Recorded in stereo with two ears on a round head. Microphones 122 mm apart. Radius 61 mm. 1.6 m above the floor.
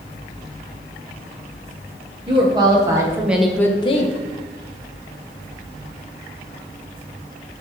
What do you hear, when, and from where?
2.3 s a woman speaking: 35° right (ahead or behind), 1.4 m; by 4.2 s 60° left (ahead or behind), 0.6 m